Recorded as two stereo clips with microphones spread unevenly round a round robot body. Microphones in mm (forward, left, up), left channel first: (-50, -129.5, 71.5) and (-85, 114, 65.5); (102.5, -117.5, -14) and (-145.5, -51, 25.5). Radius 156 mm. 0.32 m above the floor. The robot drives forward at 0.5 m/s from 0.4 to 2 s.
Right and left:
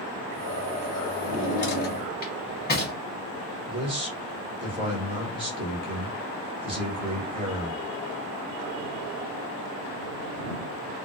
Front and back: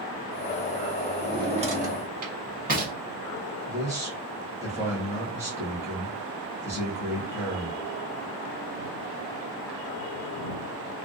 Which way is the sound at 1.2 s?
115° right.